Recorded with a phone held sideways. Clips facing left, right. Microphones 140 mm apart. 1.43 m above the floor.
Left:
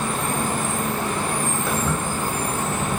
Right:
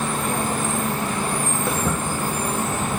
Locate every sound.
1.7 s footsteps: 25° right (ahead or behind), 3.5 m; by 2.9 s 20° right (ahead or behind), 2.5 m